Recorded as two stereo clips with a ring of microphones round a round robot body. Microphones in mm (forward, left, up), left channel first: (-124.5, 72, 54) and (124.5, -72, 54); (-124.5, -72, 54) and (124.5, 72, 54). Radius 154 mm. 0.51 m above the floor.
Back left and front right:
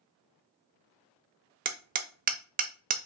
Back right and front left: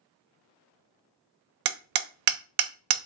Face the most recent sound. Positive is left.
turn(degrees=35)